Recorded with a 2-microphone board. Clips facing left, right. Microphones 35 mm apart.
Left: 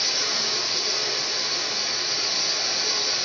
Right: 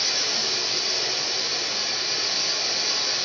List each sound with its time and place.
0.0 s running water: 5° left (ahead or behind), 1.2 m